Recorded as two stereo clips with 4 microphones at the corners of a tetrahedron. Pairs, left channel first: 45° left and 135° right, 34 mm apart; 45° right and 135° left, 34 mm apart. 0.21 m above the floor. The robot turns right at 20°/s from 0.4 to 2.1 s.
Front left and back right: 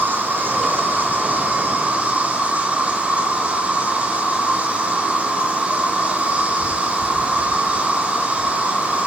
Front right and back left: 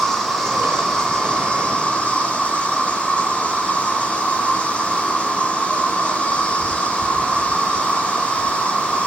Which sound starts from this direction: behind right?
An insect, at 0.0 s.